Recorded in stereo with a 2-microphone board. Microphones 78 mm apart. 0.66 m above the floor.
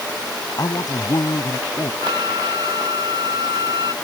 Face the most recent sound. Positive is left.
turn(degrees=-60)  # may be behind; listen again after turning